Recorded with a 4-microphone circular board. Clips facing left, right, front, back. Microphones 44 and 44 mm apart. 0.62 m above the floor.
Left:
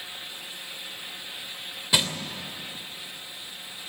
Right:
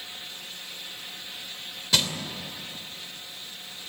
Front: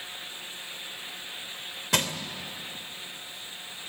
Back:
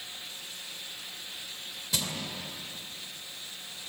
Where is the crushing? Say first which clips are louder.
Left 1 dB, front 7 dB; 15° left, 2.5 m.